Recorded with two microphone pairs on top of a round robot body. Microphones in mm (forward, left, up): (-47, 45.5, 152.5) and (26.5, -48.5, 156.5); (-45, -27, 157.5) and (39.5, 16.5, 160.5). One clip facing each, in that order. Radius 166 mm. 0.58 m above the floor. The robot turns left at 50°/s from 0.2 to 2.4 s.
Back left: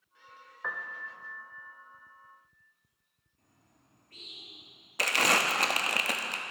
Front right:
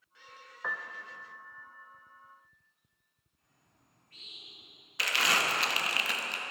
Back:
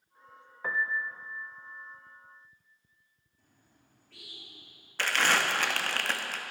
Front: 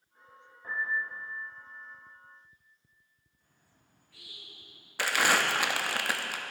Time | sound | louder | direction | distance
0.6 | a piano | even, back 2 dB | 135° right | 0.6 m
3.4 | a bird | back left 4 dB, back 4 dB | 175° left | 5 m
5.0 | crumpling | back left 3 dB, front 1 dB | 110° left | 1.4 m